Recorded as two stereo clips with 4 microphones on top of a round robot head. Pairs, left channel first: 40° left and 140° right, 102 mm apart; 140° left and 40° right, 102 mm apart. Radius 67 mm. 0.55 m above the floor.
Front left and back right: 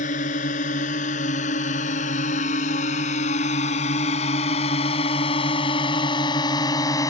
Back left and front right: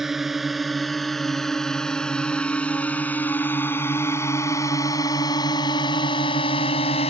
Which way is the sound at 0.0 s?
45° left.